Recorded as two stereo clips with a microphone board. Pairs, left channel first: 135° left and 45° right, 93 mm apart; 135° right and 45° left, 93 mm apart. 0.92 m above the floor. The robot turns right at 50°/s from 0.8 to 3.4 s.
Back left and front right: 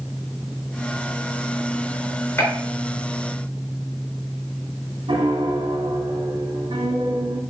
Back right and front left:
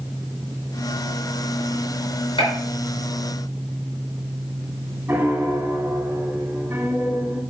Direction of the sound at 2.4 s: 155° right.